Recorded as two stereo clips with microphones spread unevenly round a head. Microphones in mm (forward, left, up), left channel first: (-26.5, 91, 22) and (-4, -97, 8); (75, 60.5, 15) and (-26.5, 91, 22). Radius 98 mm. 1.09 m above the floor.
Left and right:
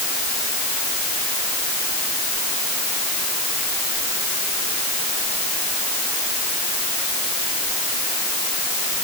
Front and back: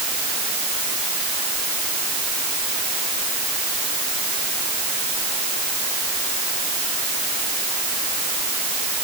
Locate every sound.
Only background noise.